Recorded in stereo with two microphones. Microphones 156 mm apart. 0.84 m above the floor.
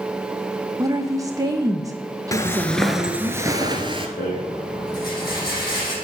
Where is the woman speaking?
20° right (ahead or behind), 0.7 m.